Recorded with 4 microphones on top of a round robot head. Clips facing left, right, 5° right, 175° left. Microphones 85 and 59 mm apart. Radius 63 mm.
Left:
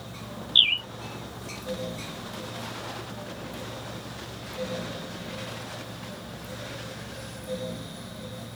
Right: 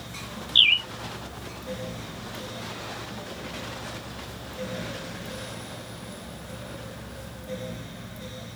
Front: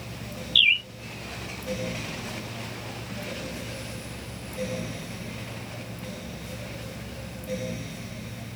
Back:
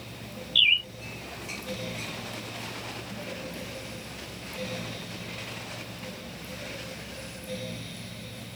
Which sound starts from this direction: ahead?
A bird, at 0.6 s.